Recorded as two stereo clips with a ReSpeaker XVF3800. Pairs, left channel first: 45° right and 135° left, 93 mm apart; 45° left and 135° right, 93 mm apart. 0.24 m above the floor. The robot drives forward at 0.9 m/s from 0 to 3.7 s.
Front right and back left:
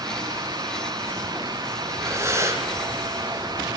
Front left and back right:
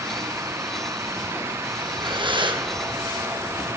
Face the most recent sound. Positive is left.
turn(degrees=-170)